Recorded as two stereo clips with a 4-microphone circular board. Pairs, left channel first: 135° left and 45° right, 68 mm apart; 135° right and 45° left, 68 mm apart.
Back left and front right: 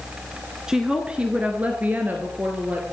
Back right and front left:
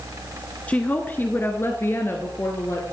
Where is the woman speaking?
110° right, 1.1 m; by 2.8 s 100° right, 2.0 m.